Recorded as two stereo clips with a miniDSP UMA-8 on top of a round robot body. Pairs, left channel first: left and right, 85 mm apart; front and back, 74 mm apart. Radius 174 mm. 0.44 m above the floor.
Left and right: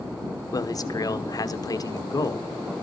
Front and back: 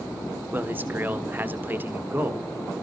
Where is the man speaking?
120° left, 1.4 m.